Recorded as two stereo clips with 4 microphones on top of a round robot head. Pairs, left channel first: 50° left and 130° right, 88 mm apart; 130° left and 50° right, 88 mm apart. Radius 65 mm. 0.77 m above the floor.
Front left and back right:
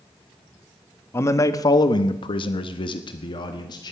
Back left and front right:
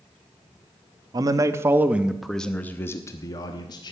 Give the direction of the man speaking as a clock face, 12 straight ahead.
12 o'clock.